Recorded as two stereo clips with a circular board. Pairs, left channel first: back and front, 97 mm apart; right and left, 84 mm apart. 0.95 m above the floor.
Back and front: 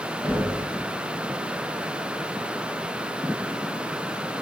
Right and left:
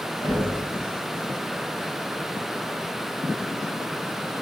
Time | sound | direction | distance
0.2 | knocking | 65° right | 1.4 m